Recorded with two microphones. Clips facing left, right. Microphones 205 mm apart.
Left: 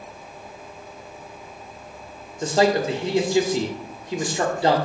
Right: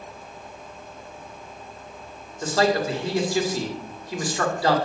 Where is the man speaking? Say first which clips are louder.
Left 2 dB; 25° left (ahead or behind), 1.8 m.